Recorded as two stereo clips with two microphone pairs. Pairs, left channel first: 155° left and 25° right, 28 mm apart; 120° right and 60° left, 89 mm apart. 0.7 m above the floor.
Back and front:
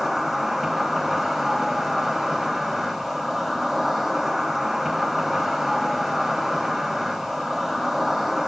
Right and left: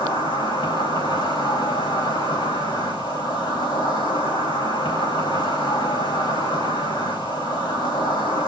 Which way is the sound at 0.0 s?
115° right.